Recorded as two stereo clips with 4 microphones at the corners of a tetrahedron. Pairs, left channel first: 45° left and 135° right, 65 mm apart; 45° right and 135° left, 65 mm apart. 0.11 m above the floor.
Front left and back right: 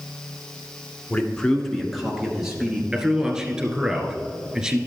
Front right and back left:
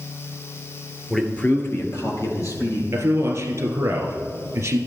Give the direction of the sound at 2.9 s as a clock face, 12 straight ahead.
7 o'clock.